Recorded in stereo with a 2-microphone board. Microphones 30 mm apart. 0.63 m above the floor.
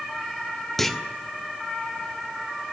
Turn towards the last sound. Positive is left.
turn(degrees=10)  # may be behind; listen again after turning